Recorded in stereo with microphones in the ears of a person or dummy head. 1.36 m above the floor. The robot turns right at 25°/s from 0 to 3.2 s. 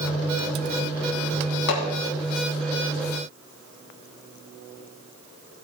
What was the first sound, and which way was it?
Hammering, 60° left (ahead or behind).